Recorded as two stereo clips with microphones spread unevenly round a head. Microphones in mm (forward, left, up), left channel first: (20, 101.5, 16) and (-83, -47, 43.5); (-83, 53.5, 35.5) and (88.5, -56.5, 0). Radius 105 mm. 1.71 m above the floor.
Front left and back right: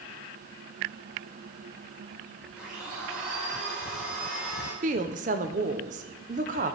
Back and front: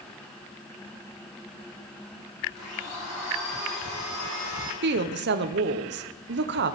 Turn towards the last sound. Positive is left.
turn(degrees=-75)